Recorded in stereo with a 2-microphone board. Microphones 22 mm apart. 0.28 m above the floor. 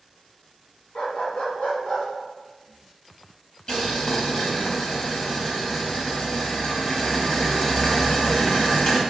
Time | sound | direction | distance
0.9 | a dog barking | 60° left (ahead or behind) | 0.9 m
3.7 | boiling | 35° left (ahead or behind) | 1.0 m